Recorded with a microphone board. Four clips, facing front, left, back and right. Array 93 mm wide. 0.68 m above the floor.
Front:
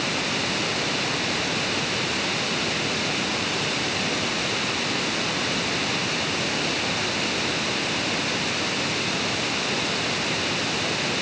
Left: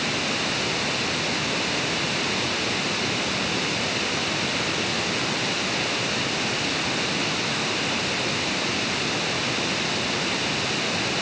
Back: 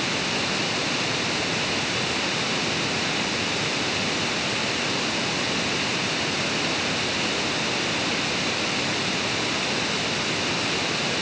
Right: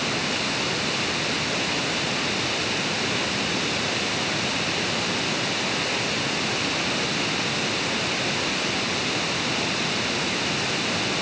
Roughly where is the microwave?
I don't hear a microwave.